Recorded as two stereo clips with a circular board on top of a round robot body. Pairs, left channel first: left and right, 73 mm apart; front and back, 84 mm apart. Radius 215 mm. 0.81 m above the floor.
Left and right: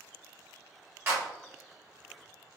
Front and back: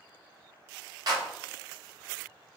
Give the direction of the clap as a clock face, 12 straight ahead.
5 o'clock.